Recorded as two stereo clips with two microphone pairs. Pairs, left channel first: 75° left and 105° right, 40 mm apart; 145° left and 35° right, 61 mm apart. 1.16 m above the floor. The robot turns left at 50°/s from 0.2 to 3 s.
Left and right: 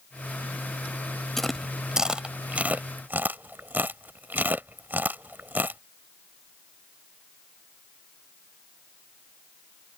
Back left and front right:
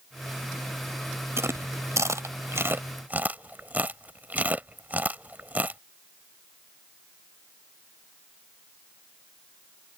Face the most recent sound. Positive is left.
turn(degrees=-85)